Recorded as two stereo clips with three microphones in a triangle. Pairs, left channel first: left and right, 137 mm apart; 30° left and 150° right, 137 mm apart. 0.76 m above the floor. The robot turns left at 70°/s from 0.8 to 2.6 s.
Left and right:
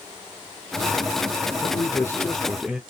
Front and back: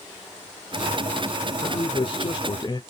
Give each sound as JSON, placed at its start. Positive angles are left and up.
{"t": 1.6, "sound": "a man speaking", "azimuth_deg": 60, "distance_m": 0.6}